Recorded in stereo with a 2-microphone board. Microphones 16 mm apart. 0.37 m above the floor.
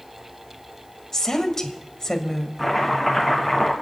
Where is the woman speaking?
30° left (ahead or behind), 1.9 m.